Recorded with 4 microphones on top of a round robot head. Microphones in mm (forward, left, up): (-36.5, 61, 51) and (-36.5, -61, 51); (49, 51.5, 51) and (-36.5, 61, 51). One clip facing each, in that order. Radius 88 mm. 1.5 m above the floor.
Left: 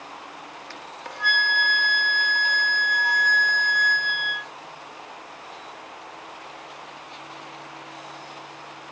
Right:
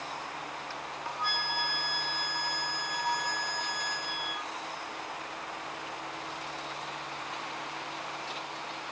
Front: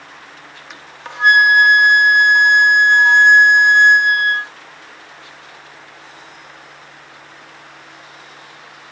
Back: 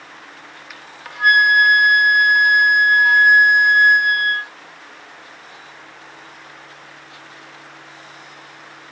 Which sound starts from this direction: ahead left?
A flute, at 0.7 s.